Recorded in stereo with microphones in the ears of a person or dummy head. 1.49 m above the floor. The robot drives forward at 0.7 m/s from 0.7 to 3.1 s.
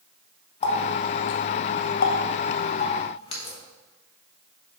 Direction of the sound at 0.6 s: 35° left (ahead or behind).